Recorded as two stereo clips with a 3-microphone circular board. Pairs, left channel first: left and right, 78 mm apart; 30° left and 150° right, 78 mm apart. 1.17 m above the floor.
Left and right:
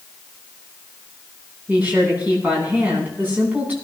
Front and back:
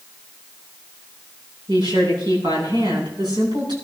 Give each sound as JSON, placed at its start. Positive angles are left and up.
{"t": 1.7, "sound": "a woman speaking", "azimuth_deg": -160, "distance_m": 9.0}